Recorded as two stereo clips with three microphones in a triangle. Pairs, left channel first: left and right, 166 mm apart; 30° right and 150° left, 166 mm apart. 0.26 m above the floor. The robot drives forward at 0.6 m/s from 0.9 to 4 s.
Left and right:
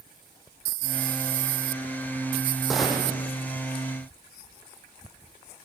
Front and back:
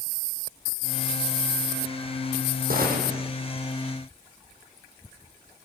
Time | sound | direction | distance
2.7 | a gunshot | straight behind | 2 m